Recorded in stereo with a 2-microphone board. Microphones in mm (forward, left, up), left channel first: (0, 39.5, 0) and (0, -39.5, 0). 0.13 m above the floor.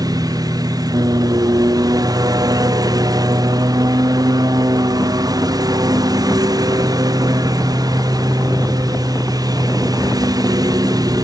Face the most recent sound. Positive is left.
turn(degrees=-50)  # may be behind; listen again after turning